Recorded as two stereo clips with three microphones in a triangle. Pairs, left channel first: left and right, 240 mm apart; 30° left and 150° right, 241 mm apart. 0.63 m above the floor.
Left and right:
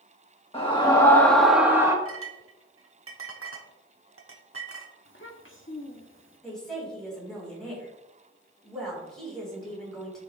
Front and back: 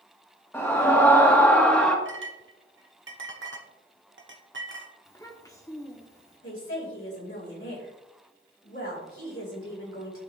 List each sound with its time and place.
0.5 s a scream: 95° left, 1.2 m; by 1.9 s 45° right, 1.2 m
2.0 s a clink: 115° right, 1.0 m
5.0 s a child speaking: 105° left, 1.1 m
6.4 s a woman speaking: straight ahead, 4 m